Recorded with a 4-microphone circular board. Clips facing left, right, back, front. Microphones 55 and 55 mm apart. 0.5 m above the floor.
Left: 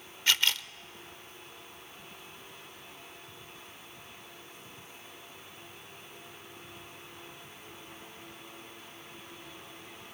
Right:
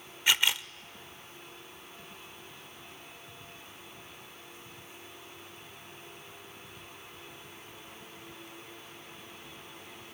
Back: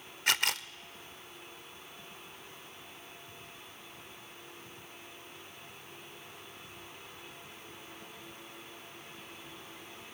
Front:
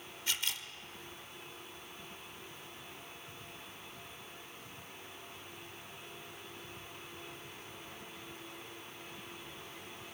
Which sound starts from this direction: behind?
A camera shutter, at 0.3 s.